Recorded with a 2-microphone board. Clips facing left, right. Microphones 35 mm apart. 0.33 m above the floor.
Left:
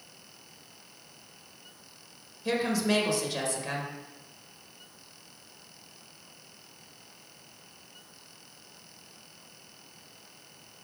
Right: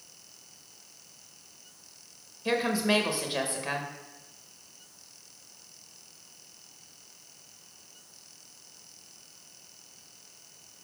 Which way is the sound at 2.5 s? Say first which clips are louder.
Right 1 dB; 25° right (ahead or behind).